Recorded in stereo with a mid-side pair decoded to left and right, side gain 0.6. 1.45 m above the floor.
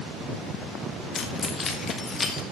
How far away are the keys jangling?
About 1.6 m.